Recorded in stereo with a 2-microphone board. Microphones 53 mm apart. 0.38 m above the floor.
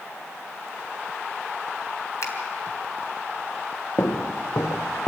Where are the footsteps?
75° left (ahead or behind), 1.3 m; by 5.1 s 45° left (ahead or behind), 1.3 m.